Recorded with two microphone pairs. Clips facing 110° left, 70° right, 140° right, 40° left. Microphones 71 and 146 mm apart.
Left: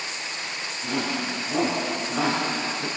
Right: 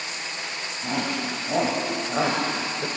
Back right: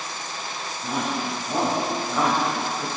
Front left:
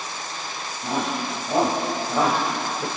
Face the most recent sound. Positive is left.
turn(degrees=-20)